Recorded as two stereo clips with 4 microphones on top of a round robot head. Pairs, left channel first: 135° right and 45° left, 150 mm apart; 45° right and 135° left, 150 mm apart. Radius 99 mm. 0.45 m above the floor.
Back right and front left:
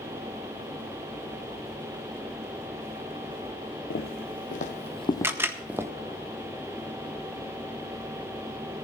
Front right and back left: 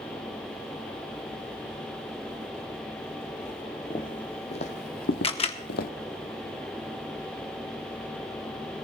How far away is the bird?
No bird in this recording.